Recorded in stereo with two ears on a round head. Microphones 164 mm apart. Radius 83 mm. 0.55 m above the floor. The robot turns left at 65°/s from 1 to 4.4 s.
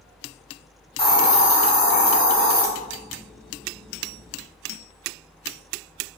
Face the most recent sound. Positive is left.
turn(degrees=-60)